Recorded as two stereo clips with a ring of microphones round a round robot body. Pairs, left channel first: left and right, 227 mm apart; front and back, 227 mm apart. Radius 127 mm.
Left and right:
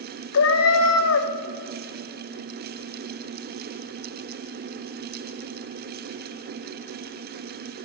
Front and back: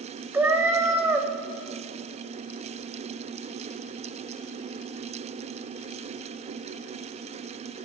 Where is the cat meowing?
100° left, 0.7 m.